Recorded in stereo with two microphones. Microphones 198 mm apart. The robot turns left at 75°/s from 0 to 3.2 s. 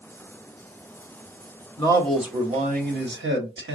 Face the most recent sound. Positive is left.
turn(degrees=-80)